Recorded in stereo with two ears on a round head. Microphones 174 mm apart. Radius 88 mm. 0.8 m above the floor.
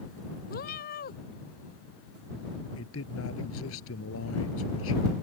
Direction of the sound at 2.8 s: 70° left (ahead or behind).